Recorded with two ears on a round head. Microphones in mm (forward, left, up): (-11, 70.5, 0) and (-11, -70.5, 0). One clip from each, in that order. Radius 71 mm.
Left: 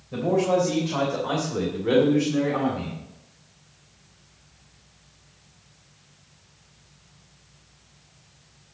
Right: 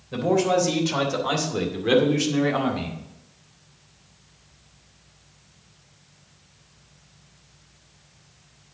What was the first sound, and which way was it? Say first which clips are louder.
A man speaking: right 1 dB; 60° right (ahead or behind).